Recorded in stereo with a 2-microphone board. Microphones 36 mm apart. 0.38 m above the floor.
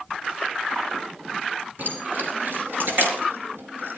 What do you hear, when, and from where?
1.8 s keys jangling: 60° right (ahead or behind), 6 m; by 4.0 s 80° right, 4.5 m